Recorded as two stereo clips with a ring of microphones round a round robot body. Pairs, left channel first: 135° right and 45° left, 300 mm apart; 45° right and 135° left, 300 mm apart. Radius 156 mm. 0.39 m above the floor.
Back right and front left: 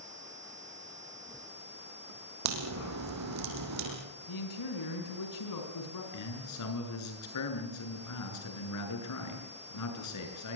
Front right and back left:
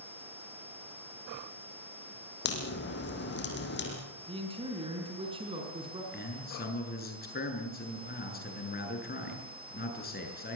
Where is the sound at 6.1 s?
105° right, 7 m.